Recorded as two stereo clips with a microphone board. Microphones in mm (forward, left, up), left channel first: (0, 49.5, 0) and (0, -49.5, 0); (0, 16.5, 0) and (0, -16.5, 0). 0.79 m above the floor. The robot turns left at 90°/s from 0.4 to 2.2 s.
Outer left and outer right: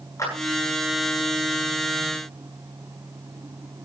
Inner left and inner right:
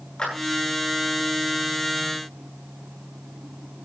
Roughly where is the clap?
Left.